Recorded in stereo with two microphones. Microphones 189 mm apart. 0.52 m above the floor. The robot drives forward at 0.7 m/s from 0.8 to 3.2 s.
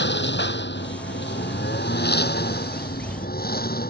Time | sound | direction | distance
0.0 | a lawn mower | 75° left (ahead or behind) | ?